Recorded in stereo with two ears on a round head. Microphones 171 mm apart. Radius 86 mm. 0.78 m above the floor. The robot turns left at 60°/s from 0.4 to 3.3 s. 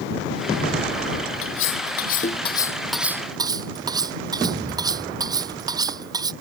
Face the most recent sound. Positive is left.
turn(degrees=-20)  # may be behind; listen again after turning